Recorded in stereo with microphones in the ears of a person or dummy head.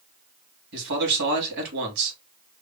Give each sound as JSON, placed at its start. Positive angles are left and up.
{"t": 0.7, "sound": "a man speaking", "side_deg": -60, "distance_m": 2.5}